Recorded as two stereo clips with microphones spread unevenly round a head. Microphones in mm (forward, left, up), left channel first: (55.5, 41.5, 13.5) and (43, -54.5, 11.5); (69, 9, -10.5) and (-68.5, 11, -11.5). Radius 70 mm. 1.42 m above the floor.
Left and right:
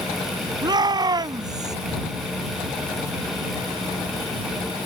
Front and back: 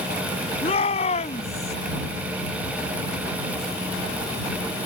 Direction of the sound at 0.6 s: 50° right.